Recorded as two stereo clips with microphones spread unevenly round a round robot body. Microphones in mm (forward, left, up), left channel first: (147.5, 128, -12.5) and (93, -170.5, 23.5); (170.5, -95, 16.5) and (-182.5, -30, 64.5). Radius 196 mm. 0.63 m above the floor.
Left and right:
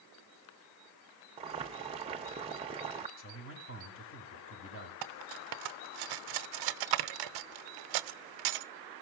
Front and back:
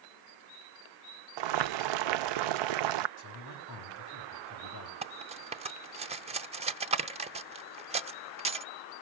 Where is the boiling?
175° right, 0.5 m.